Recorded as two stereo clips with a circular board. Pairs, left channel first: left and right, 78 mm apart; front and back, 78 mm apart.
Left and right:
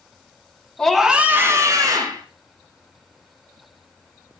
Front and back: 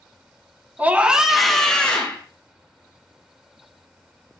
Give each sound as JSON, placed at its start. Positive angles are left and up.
{"t": 0.8, "sound": "a scream", "azimuth_deg": 155, "distance_m": 1.1}